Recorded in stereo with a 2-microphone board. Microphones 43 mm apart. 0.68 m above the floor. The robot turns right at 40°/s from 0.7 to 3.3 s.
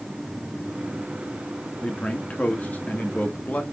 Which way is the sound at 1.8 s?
50° left.